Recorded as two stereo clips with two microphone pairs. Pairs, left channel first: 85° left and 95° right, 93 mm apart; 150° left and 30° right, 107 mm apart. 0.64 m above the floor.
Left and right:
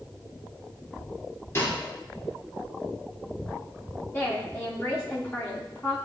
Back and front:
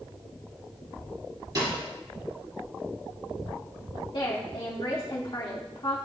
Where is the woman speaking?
140° left, 1.2 m.